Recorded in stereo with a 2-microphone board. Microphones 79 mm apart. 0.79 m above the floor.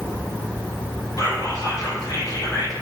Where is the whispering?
50° left (ahead or behind), 2.5 m.